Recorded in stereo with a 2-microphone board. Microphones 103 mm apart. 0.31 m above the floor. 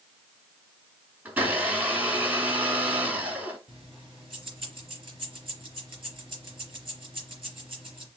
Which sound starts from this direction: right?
Keys jangling, at 3.7 s.